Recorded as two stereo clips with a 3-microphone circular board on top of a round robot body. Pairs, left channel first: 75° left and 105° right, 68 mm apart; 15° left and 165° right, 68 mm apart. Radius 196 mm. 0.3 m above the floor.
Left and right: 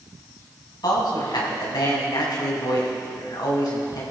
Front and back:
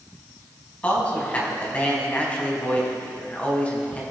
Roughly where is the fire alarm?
I don't hear a fire alarm.